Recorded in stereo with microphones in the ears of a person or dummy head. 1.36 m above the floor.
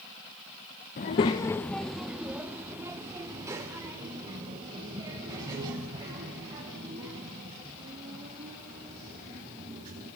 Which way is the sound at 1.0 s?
30° left (ahead or behind).